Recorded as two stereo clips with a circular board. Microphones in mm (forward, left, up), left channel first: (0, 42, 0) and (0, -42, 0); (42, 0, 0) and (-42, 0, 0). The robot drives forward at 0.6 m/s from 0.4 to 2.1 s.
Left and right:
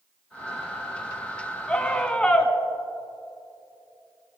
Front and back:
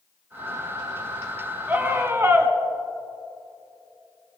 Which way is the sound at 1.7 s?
150° left.